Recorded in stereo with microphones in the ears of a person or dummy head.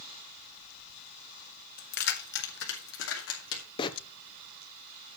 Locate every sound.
1.8 s keys jangling: 50° left (ahead or behind), 1.6 m; by 3.6 s 85° left, 3 m
3.8 s a bird: 25° left (ahead or behind), 0.8 m